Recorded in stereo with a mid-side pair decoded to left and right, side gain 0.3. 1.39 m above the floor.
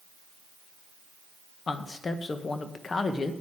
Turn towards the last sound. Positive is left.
turn(degrees=55)